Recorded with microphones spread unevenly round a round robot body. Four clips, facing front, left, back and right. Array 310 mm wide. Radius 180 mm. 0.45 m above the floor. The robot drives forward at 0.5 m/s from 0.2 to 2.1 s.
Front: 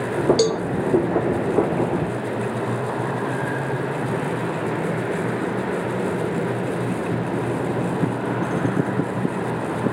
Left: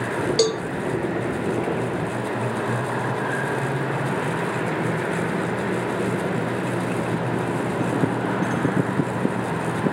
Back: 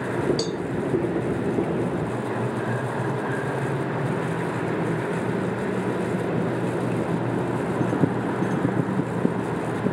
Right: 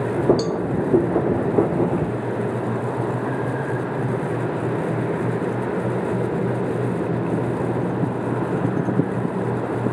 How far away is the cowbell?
About 0.9 m.